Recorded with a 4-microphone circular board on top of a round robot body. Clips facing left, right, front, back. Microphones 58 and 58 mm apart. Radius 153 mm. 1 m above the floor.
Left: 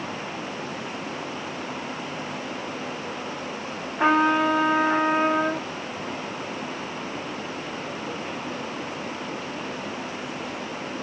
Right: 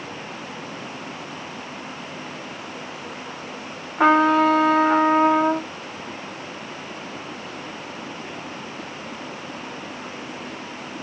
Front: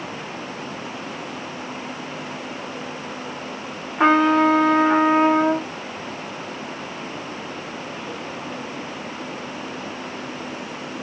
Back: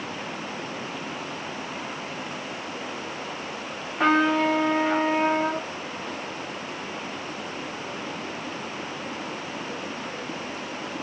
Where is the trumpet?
70° right, 0.9 m.